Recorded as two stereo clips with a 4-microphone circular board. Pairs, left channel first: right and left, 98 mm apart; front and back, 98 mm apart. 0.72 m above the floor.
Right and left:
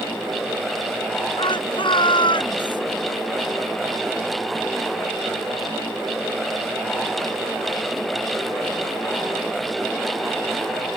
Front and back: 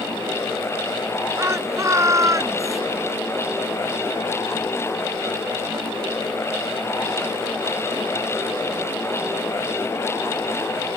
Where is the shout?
120° right; by 2.8 s 125° right.